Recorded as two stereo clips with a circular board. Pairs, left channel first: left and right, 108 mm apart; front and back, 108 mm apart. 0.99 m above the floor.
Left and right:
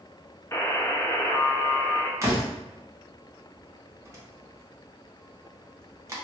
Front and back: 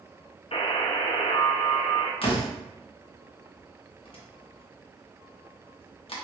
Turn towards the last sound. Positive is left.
turn(degrees=-30)